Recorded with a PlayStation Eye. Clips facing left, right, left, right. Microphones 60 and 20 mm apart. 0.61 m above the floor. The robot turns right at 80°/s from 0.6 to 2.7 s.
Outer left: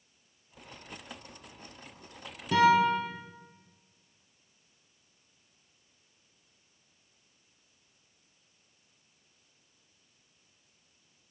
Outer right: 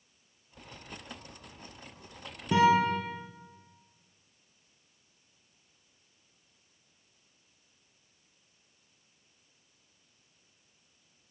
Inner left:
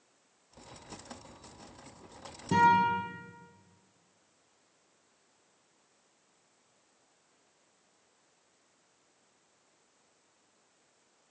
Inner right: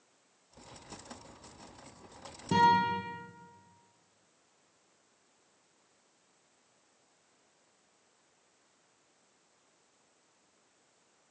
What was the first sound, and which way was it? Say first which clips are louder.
A guitar: outer left 1 dB, inner left 1 dB; 15° right (ahead or behind).